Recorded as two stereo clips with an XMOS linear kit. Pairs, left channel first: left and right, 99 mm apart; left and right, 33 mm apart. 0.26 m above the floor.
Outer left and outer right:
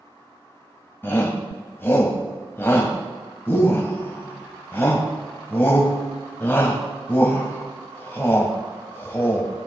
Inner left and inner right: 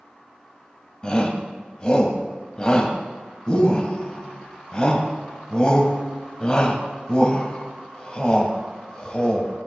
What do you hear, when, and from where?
1.0 s a shout: 25° left (ahead or behind), 1.6 m